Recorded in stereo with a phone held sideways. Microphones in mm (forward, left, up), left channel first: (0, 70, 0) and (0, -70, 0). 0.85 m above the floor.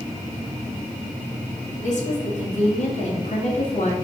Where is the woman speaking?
60° left (ahead or behind), 2 m.